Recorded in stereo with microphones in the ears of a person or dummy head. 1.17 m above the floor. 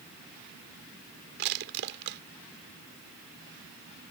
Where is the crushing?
55° right (ahead or behind).